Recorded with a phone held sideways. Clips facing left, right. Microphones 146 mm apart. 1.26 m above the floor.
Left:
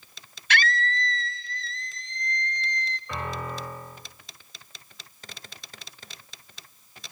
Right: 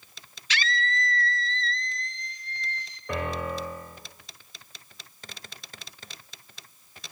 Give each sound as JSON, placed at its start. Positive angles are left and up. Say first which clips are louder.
{"t": 0.5, "sound": "a scream", "louder": "left 3 dB", "side_deg": 60, "distance_m": 1.1}
{"t": 3.1, "sound": "a piano", "louder": "right 4 dB", "side_deg": -75, "distance_m": 8.0}